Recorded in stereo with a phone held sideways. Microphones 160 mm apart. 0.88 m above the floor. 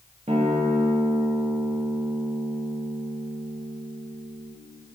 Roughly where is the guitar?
Right.